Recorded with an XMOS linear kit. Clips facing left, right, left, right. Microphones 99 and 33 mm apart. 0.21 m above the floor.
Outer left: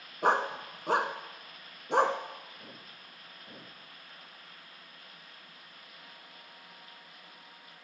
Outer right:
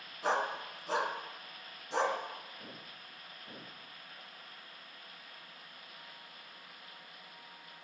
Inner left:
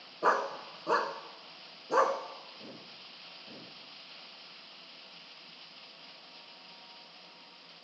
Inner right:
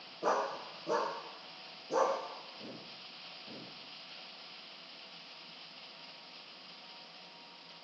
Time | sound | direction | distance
0.2 | a dog barking | 55° left (ahead or behind) | 0.9 m